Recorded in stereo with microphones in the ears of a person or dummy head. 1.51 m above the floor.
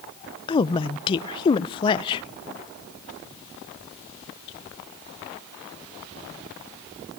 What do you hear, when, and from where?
0.5 s a woman speaking: 30° left (ahead or behind), 0.6 m